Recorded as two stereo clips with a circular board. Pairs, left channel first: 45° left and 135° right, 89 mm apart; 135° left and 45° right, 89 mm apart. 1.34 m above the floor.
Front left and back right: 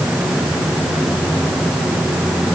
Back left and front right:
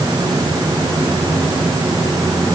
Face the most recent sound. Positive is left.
No sound to turn to.